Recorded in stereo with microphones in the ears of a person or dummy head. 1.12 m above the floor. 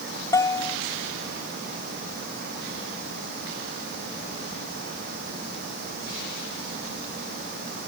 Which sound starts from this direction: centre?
A bell, at 0.3 s.